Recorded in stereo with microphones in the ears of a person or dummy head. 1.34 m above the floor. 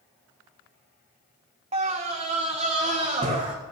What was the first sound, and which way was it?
A scream, 30° right (ahead or behind).